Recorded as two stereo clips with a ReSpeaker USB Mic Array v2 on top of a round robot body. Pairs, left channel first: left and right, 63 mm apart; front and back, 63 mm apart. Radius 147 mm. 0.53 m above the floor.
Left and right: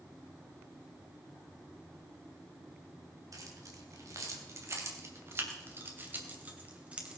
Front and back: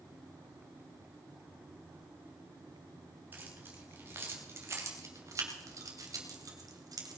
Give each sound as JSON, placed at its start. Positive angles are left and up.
{"t": 3.3, "sound": "keys jangling", "azimuth_deg": -120, "distance_m": 3.5}